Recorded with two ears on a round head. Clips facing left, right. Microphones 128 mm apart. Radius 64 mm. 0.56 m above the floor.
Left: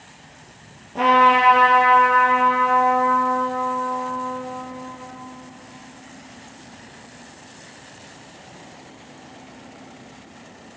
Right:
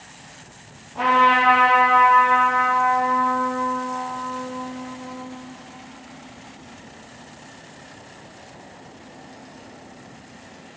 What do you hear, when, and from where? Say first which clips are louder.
0.9 s a trumpet: left 2 dB; 60° left (ahead or behind), 2.0 m